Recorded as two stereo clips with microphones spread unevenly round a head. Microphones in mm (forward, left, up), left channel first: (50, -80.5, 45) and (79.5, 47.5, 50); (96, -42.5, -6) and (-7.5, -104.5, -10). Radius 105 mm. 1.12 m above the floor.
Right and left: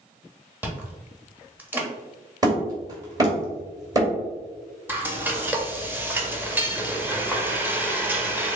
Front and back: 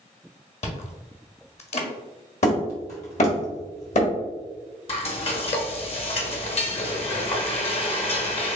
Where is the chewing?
Straight ahead, 1.3 m.